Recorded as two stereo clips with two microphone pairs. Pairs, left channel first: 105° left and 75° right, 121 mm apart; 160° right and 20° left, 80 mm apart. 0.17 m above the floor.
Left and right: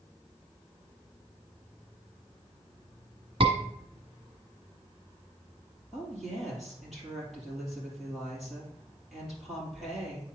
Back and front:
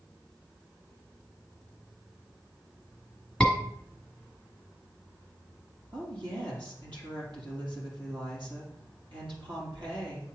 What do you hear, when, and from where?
3.4 s a scream: 65° right, 1.3 m
5.9 s a woman speaking: 15° left, 3.5 m